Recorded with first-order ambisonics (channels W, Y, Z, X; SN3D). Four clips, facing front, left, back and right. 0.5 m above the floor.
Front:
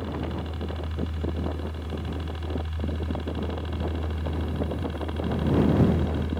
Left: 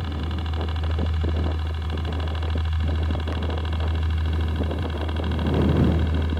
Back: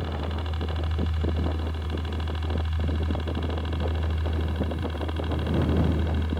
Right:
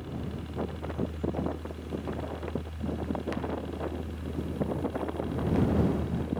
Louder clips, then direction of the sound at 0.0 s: Left 6 dB, front 1 dB; 110° left.